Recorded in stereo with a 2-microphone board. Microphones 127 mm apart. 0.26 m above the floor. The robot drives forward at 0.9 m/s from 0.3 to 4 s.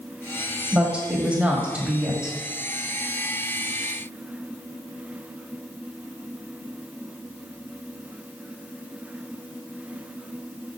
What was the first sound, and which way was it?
A woman speaking, 10° right (ahead or behind).